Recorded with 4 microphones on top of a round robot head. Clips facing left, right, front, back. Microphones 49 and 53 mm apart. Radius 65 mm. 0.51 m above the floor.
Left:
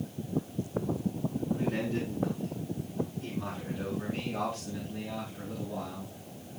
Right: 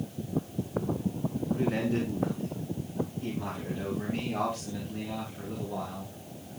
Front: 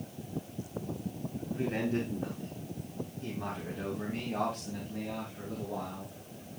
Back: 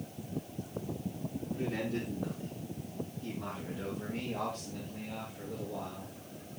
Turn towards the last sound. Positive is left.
turn(degrees=-25)